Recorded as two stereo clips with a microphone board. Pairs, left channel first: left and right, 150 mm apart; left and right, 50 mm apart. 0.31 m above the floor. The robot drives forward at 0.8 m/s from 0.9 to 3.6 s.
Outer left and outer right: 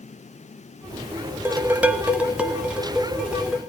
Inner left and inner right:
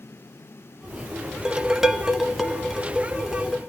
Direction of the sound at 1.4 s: 15° right (ahead or behind).